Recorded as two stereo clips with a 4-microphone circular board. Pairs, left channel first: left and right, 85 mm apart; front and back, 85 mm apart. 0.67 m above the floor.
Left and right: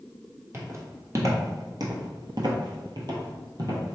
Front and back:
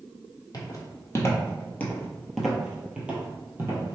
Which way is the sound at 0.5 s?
35° right.